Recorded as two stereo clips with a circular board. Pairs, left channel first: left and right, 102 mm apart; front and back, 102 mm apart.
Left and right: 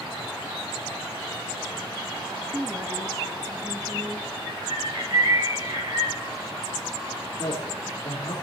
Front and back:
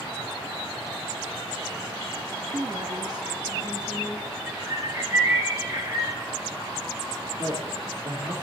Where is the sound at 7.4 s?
145° left, 4.5 m.